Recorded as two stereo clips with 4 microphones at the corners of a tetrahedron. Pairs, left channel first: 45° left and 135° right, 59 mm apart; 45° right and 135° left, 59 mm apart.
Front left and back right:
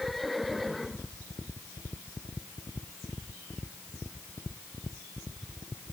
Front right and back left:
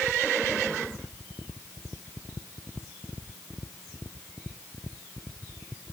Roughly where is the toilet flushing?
No toilet flushing in this recording.